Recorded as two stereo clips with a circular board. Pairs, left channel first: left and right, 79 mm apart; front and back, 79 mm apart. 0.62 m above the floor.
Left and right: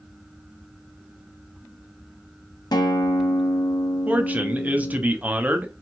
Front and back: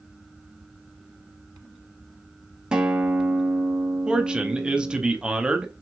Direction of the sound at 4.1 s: 120° right.